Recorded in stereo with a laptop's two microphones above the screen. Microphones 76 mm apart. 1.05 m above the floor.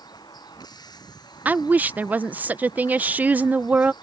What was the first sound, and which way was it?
A vehicle, 70° left (ahead or behind).